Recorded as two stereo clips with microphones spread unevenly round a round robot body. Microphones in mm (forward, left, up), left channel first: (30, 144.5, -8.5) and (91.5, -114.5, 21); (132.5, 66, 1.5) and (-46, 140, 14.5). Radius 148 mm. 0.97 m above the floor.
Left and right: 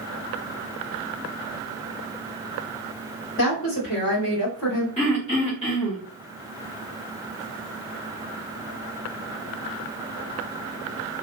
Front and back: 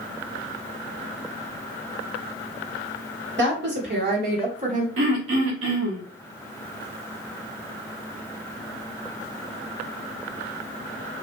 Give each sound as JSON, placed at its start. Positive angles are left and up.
{"t": 3.4, "sound": "a woman speaking", "azimuth_deg": 145, "distance_m": 1.8}
{"t": 5.0, "sound": "throat clearing", "azimuth_deg": 175, "distance_m": 1.0}